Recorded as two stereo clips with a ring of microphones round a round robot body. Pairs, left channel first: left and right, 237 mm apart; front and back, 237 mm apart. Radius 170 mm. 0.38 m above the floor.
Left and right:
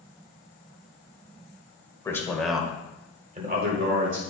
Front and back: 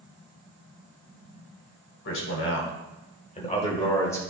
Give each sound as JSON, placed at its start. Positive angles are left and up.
{"t": 2.0, "sound": "a man speaking", "azimuth_deg": 15, "distance_m": 1.8}